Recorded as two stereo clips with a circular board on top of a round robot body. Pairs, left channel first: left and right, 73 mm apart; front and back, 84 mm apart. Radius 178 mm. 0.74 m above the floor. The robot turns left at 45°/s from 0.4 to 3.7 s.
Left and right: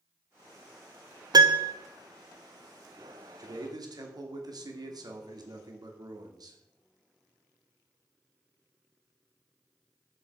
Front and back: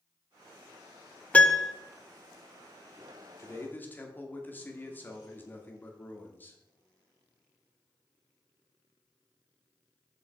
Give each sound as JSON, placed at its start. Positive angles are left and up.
{"t": 1.3, "sound": "a piano", "azimuth_deg": -75, "distance_m": 1.0}
{"t": 3.4, "sound": "a man speaking", "azimuth_deg": -55, "distance_m": 2.5}